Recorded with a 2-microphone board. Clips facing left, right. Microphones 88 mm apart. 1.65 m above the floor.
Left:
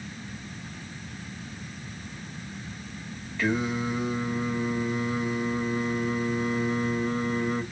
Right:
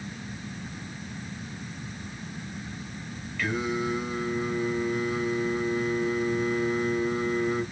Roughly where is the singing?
Left.